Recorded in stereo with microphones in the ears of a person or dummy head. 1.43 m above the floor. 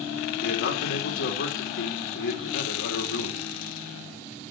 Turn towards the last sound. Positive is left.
turn(degrees=65)  # may be behind; listen again after turning